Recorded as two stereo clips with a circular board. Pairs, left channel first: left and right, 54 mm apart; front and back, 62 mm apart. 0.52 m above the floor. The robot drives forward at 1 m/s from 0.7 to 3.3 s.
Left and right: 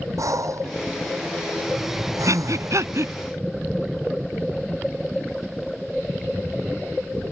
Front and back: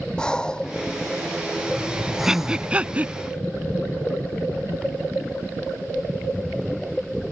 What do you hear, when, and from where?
0.2 s breathing: 80° right; by 2.8 s 100° right
2.3 s breathing: 100° right; by 3.1 s 120° right